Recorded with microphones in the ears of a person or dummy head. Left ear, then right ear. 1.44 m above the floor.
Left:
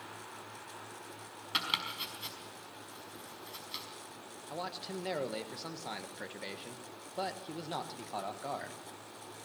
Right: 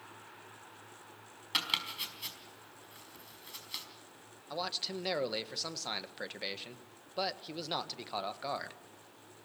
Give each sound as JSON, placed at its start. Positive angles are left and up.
{"t": 1.5, "sound": "chopping", "side_deg": -15, "distance_m": 4.0}
{"t": 4.5, "sound": "a man speaking", "side_deg": -35, "distance_m": 1.3}